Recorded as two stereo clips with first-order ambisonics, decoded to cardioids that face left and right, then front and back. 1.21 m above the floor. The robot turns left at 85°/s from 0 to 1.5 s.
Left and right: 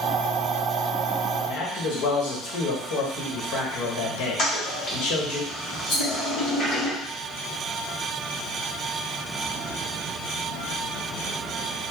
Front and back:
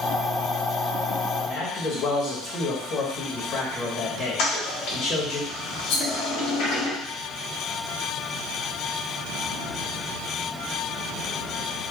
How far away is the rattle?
About 1.6 m.